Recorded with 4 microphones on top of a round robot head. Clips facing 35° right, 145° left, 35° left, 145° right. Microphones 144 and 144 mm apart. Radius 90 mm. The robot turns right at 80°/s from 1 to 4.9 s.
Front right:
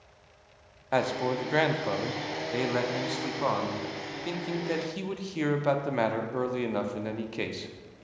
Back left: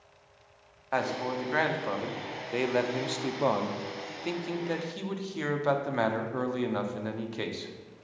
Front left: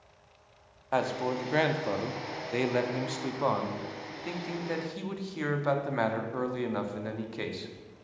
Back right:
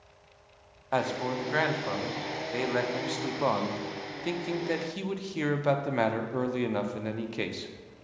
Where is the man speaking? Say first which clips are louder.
Front right 3 dB, even; 50° right, 0.7 m; by 7.7 s 100° right, 0.7 m.